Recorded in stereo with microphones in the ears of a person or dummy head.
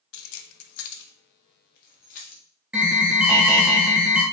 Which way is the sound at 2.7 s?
5° right (ahead or behind).